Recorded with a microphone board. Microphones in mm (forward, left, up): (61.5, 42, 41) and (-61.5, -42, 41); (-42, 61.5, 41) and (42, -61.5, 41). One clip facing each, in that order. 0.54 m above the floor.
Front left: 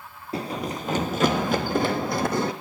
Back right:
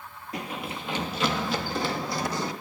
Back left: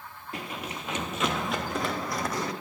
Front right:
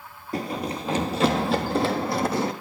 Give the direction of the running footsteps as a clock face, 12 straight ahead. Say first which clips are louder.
Front left 5 dB, front right 9 dB; 12 o'clock.